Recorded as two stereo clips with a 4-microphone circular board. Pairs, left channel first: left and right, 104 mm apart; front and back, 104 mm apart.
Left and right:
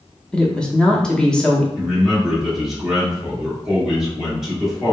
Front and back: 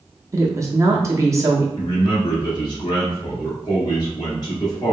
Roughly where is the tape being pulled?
No tape being pulled in this recording.